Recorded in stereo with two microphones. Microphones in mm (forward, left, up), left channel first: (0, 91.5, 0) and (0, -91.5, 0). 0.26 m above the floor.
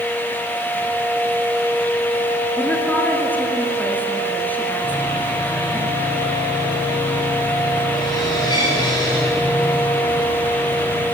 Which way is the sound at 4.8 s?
25° left (ahead or behind).